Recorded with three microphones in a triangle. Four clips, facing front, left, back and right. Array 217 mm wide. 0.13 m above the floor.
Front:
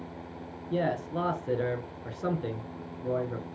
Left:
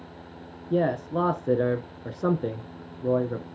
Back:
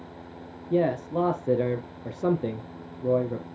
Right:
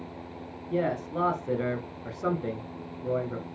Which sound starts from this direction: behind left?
A man speaking, at 0.7 s.